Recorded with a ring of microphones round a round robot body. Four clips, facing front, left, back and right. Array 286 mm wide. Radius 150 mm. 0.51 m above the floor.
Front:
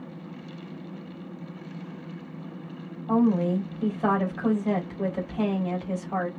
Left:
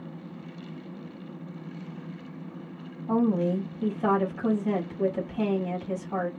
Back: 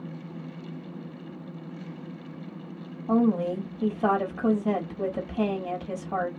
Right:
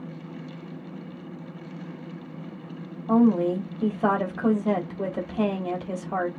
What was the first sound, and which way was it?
A woman speaking, 135° right.